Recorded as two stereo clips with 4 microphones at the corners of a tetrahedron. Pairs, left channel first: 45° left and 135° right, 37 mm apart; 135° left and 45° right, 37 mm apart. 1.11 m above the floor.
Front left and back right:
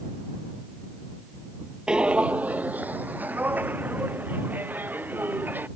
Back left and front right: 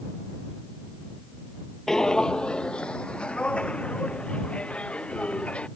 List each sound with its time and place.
1.9 s footsteps: 165° right